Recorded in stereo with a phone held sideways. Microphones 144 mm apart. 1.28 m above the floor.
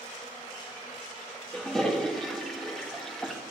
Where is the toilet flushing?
5° left (ahead or behind), 1.5 m.